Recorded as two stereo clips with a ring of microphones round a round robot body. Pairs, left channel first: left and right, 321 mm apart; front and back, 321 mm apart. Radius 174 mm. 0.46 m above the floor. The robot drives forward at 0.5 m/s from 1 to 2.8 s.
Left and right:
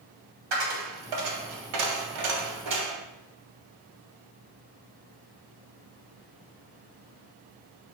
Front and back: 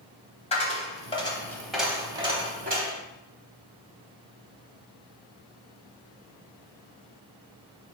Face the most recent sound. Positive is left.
turn(degrees=-115)